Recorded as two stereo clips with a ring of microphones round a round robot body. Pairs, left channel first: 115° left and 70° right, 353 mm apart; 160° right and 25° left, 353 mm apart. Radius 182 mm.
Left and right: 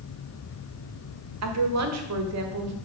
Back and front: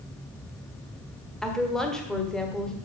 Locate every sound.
1.4 s a woman speaking: 70° right, 1.3 m